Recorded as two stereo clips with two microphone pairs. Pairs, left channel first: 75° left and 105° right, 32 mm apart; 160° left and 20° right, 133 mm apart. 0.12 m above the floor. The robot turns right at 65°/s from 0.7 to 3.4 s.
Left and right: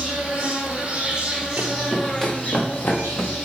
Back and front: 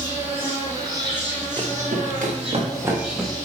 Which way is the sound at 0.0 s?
90° right.